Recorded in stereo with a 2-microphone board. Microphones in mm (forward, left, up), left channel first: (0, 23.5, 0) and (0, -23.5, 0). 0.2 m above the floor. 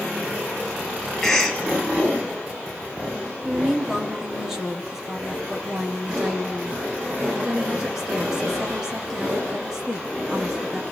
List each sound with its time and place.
1.2 s a cough: 10° left (ahead or behind), 3 m
3.5 s a woman speaking: 10° right (ahead or behind), 3.5 m